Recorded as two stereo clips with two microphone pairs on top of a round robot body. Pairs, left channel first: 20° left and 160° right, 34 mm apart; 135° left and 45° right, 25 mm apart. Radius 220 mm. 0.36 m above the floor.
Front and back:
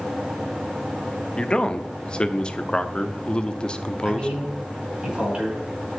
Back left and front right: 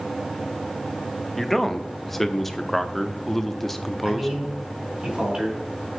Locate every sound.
1.4 s a man speaking: 65° left, 1.1 m
4.0 s a man speaking: 95° right, 5.5 m